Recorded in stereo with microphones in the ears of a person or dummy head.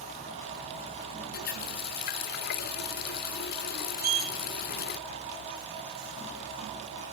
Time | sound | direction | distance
1.3 | a running tap | 50° left (ahead or behind) | 0.8 m
4.0 | a sliding door | 40° right (ahead or behind) | 3.5 m